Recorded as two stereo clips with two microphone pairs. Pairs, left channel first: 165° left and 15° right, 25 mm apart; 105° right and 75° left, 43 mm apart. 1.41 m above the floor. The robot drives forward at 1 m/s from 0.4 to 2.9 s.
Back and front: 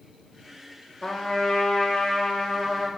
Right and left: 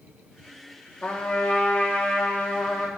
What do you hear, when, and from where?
1.0 s a trumpet: 155° right, 1.2 m; by 2.9 s 170° right, 3 m